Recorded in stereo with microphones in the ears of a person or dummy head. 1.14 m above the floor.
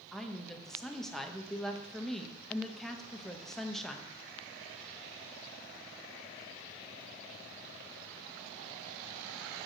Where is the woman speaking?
5° left (ahead or behind), 0.9 m.